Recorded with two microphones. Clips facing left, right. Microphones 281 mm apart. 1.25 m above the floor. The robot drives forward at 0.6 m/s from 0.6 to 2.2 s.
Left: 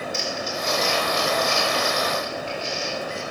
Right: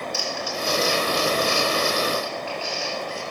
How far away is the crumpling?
About 4.5 m.